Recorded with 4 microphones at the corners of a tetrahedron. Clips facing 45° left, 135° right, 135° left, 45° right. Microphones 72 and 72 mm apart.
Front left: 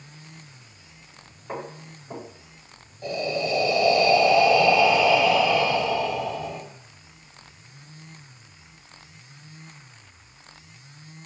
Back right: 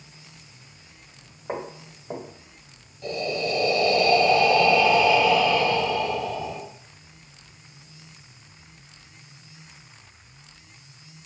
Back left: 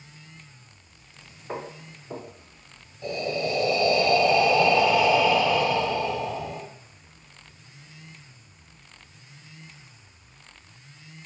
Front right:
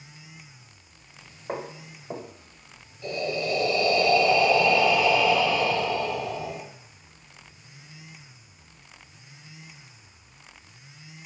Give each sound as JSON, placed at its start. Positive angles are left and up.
{"t": 1.5, "sound": "footsteps", "azimuth_deg": -85, "distance_m": 1.4}
{"t": 3.0, "sound": "breathing", "azimuth_deg": 95, "distance_m": 0.9}